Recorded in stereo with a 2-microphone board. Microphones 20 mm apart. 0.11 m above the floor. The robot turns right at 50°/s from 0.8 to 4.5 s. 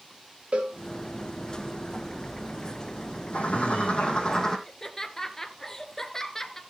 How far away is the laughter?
About 1.6 m.